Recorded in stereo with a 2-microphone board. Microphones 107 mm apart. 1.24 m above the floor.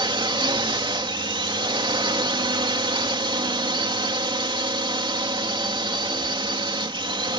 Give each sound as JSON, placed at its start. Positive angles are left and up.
{"t": 0.0, "sound": "a drone", "side_deg": -50}